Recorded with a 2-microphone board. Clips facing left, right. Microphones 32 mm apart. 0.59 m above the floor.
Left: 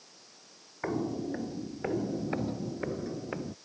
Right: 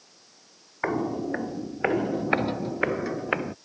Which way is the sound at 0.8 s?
45° right (ahead or behind).